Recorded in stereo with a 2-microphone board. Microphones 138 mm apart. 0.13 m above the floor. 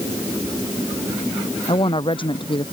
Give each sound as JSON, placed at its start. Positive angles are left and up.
{"t": 1.7, "sound": "a woman speaking", "side_deg": 35}